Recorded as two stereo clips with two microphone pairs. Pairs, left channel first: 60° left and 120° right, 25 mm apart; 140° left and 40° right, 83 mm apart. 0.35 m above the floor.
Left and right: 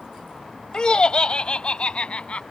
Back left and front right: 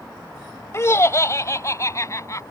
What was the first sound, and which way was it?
Laughter, 100° left.